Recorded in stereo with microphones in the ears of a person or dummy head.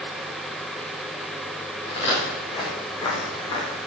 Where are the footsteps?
25° left (ahead or behind), 8 m; by 3.7 s 20° left (ahead or behind), 6.5 m.